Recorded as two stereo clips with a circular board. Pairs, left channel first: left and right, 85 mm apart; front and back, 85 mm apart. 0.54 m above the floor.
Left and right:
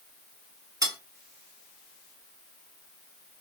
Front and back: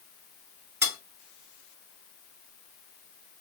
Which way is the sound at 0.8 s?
125° right.